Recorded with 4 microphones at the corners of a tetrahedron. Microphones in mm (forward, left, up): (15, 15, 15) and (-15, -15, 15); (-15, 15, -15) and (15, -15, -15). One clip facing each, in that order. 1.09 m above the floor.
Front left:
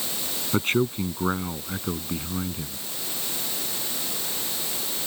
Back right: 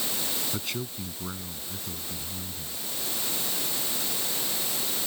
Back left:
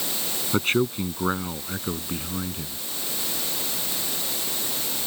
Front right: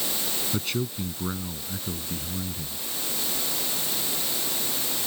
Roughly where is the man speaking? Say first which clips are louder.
Front left 11 dB, back left 9 dB; left.